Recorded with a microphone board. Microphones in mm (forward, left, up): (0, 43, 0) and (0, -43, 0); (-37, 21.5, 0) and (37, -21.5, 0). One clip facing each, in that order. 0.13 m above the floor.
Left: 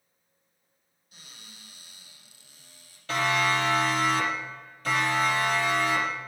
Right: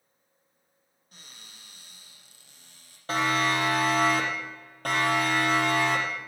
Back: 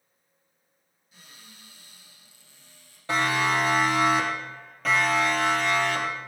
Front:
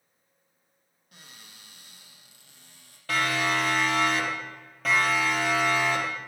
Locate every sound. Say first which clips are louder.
1.1 s a cupboard door: even, even; 50° right, 5 m
3.1 s a siren: even, back 2 dB; 140° right, 5 m; by 6.2 s 105° right, 5.5 m